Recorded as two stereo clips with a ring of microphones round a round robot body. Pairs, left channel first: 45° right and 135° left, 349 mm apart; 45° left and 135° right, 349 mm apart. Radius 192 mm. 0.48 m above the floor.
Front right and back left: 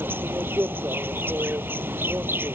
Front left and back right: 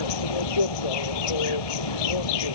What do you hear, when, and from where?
0.0 s an insect: 50° left